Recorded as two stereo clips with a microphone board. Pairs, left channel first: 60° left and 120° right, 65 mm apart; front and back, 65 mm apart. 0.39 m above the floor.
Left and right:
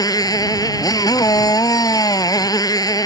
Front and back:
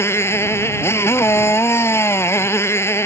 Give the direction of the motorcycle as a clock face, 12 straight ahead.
10 o'clock.